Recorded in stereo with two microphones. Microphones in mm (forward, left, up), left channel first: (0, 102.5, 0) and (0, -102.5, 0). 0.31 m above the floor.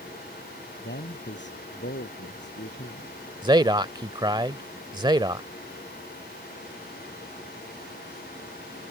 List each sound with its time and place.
0.8 s a man speaking: 60° left (ahead or behind)
3.4 s a man speaking: 20° right (ahead or behind)